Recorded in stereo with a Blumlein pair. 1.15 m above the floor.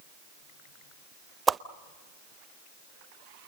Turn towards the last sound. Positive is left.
turn(degrees=-15)